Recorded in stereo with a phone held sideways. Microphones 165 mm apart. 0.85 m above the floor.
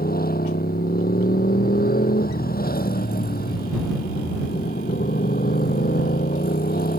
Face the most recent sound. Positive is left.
turn(degrees=65)  # may be behind; listen again after turning